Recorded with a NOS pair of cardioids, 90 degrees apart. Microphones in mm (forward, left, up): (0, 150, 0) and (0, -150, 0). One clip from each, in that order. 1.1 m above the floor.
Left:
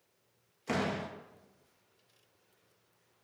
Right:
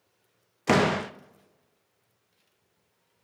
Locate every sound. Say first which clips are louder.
0.7 s a door slam: right 11 dB; 65° right, 0.6 m